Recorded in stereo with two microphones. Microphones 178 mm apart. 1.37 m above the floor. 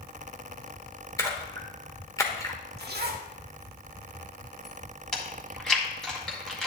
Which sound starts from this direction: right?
A zipper, at 2.8 s.